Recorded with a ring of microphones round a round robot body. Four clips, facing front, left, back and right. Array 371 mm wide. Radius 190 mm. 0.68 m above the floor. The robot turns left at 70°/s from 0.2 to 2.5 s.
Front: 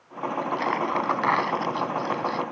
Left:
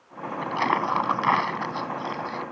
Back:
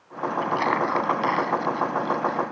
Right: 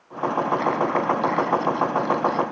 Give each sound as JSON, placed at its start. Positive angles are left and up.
{"t": 0.4, "sound": "crumpling", "azimuth_deg": 130}